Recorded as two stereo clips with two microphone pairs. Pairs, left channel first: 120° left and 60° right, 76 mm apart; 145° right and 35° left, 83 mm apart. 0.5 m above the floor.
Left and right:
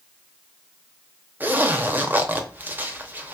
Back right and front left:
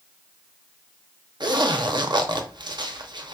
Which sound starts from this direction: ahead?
A zipper, at 1.4 s.